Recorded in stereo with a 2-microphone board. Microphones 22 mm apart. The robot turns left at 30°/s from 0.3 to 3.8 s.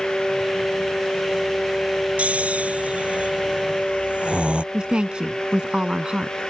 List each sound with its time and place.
2.2 s snoring: 70° right (ahead or behind); by 4.6 s 50° right (ahead or behind)
4.7 s a woman speaking: 40° right (ahead or behind)